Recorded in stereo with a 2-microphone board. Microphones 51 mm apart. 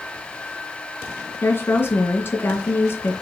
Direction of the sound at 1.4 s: 45° left (ahead or behind).